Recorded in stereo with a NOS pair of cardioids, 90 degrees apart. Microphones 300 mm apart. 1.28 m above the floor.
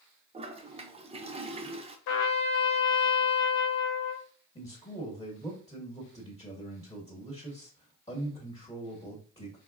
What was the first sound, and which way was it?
A toilet flushing, 20° right.